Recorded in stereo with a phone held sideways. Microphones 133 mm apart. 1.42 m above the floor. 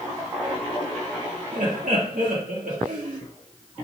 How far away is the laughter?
About 1.9 m.